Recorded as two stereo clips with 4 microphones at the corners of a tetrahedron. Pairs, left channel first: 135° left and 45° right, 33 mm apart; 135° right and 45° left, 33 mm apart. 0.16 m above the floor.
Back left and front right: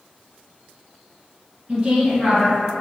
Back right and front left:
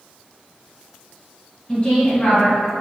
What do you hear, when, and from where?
1.7 s a woman speaking: 95° right, 1.9 m